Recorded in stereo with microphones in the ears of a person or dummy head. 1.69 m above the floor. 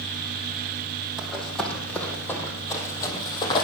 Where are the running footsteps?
5° left (ahead or behind), 3 m; by 3.6 s 30° left (ahead or behind), 3 m.